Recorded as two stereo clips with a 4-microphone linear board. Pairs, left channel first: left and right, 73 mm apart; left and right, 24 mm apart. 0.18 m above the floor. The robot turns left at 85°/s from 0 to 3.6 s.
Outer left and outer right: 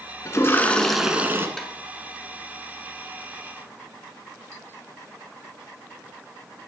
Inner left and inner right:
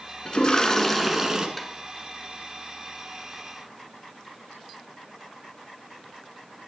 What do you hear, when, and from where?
0.2 s a toilet flushing: 60° left, 1.3 m; by 1.5 s 45° right, 1.3 m
1.6 s tapping: 5° left (ahead or behind), 0.8 m; by 1.7 s 5° right (ahead or behind), 0.8 m